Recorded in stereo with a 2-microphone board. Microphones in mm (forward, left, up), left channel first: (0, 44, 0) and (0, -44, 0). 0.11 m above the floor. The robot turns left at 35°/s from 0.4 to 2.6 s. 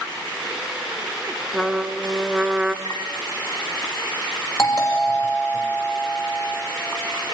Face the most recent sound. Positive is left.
turn(degrees=40)  # may be behind; listen again after turning